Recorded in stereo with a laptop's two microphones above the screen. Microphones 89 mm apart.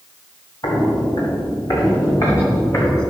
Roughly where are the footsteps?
Left.